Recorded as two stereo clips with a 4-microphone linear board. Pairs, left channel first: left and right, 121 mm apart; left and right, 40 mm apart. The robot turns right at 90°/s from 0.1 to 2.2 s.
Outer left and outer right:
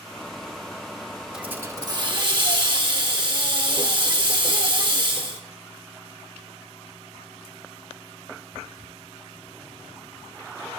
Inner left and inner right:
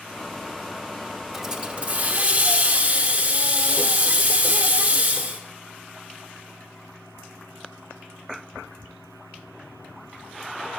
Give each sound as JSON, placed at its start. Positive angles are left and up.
{"t": 1.3, "sound": "a hiss", "azimuth_deg": -170, "distance_m": 1.2}